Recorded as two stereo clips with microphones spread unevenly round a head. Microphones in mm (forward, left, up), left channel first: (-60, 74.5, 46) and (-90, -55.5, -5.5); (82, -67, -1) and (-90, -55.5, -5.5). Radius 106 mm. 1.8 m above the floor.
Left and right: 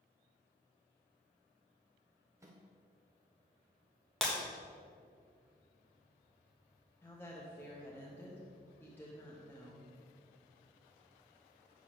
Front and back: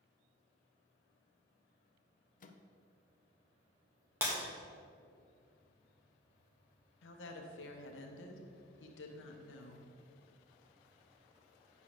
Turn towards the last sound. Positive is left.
turn(degrees=0)